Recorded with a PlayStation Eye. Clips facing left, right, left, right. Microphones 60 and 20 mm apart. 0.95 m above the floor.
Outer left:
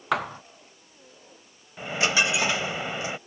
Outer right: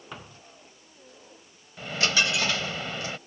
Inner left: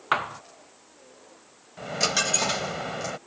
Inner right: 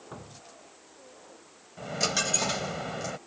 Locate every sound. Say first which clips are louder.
0.1 s a thud: outer left 18 dB, inner left 22 dB; 75° left (ahead or behind)
1.8 s a dropped coin: outer left 2 dB, inner left 3 dB; 20° left (ahead or behind)